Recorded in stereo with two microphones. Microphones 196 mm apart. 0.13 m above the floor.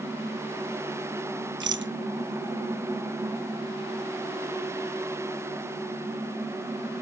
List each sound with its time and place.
1.6 s a rattle: 70° right (ahead or behind)